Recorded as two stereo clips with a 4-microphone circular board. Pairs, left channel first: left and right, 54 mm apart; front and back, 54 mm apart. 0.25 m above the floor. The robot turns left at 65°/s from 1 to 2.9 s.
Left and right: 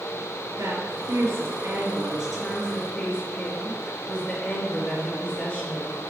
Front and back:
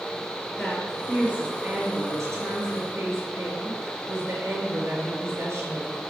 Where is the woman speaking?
90° right, 4.5 m; by 6.0 s 145° left, 4.5 m.